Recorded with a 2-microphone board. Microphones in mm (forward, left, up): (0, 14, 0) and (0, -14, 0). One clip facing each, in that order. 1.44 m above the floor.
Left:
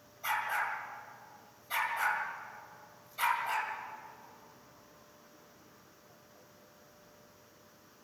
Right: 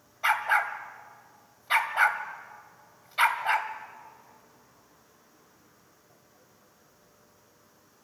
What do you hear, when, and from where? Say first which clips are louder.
0.2 s a dog barking: right 8 dB; 55° right (ahead or behind), 1.9 m